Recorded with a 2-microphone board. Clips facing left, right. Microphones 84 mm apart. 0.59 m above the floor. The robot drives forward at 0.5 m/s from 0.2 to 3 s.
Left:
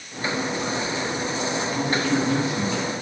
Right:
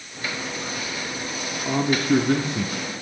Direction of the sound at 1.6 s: 55° right (ahead or behind).